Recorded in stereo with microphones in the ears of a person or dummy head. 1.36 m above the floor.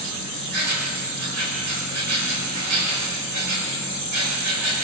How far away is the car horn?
No car horn in this recording.